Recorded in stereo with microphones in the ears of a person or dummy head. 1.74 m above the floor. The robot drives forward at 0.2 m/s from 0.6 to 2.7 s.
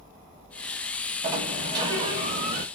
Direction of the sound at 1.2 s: 25° right (ahead or behind).